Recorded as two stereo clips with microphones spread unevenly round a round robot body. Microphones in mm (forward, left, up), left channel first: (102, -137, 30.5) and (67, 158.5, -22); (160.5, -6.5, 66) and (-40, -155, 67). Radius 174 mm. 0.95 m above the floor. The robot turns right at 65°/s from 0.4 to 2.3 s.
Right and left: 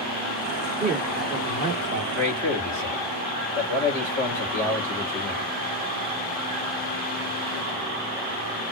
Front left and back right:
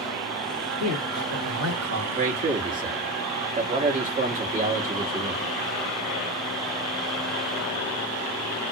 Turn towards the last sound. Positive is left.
turn(degrees=-165)